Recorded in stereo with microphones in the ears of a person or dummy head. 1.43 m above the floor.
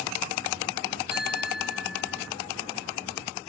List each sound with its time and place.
1.1 s a bicycle bell: 5° right (ahead or behind)